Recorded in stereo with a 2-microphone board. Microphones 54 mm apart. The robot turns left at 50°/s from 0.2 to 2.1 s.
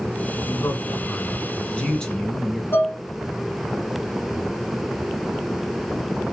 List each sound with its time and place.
0.4 s a man speaking: 95° left, 1.9 m; by 2.6 s 10° left, 1.9 m
2.7 s dishes clattering: 45° left (ahead or behind), 1.2 m